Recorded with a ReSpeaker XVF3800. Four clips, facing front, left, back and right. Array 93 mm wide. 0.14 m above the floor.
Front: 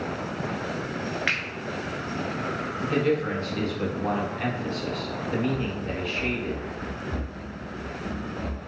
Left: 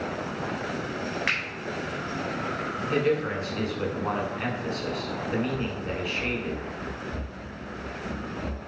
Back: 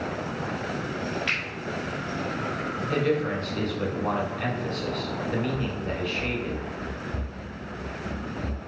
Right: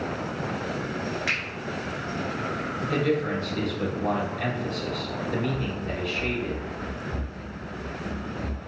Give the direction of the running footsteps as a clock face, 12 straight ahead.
2 o'clock.